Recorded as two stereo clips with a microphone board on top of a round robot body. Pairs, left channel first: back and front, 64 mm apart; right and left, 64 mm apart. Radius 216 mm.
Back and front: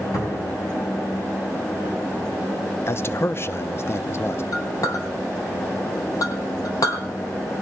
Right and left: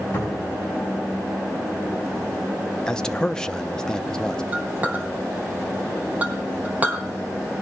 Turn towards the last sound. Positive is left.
turn(degrees=155)